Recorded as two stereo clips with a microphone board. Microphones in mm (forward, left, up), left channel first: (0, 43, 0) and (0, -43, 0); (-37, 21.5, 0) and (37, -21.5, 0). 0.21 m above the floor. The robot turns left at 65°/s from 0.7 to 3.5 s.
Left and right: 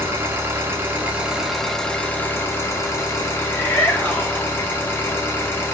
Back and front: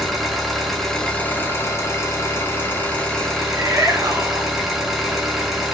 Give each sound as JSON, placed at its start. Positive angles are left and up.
{"t": 0.0, "sound": "an engine running", "azimuth_deg": -125, "distance_m": 1.4}
{"t": 3.4, "sound": "a shout", "azimuth_deg": 20, "distance_m": 3.0}